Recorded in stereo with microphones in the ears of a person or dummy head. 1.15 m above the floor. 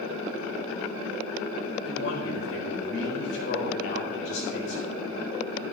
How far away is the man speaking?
About 4.5 m.